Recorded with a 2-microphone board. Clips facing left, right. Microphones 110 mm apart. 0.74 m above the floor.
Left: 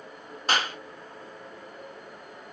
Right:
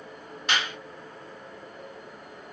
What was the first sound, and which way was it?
A clap, 40° left (ahead or behind).